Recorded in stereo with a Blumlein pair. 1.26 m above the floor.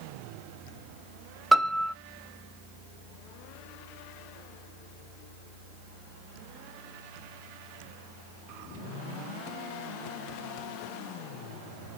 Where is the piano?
5° right, 0.5 m.